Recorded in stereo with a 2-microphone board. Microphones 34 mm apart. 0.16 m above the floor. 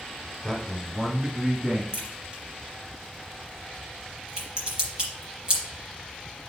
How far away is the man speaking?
About 1.2 m.